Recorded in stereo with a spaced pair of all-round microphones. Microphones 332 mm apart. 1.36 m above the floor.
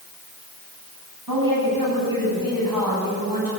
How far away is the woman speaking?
About 9 m.